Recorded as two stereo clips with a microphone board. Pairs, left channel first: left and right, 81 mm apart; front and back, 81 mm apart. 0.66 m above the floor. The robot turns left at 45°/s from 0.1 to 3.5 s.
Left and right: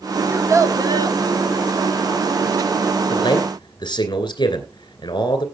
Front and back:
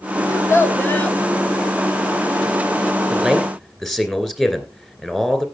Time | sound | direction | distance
0.3 | a child speaking | 35° right | 1.2 m
3.1 | a man speaking | 110° left | 2.5 m